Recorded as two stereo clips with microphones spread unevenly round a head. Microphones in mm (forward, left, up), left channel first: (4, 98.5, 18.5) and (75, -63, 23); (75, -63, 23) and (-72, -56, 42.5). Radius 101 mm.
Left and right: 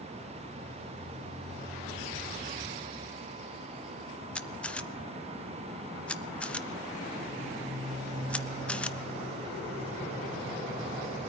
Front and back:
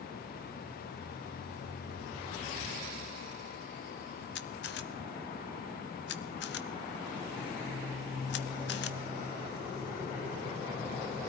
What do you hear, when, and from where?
4.3 s a camera shutter: 30° left, 0.6 m